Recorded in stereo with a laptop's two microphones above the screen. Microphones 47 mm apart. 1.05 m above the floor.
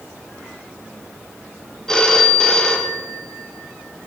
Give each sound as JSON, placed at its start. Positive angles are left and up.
{"t": 1.9, "sound": "a phone ringing", "side_deg": 15, "distance_m": 0.6}